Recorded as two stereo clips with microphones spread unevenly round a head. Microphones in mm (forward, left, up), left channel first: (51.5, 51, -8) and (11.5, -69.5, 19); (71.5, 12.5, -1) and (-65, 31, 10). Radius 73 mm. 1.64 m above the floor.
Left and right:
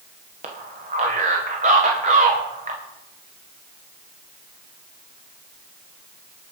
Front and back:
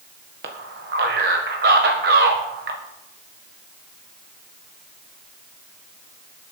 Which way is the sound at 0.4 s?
155° right.